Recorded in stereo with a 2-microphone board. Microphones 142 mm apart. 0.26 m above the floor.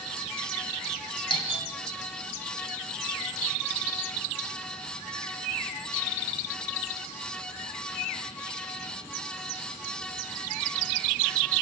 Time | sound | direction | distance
1.3 | a doorbell | 35° left (ahead or behind) | 1.8 m